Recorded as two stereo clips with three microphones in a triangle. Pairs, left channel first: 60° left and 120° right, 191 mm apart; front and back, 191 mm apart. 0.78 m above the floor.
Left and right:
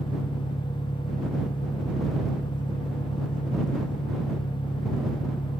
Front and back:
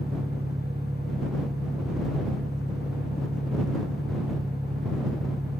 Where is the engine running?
110° left.